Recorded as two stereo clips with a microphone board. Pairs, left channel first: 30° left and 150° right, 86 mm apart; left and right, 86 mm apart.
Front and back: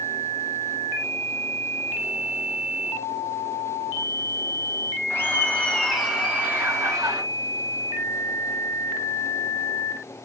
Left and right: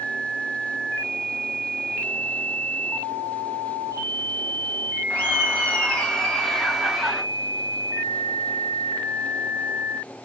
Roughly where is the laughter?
Ahead left.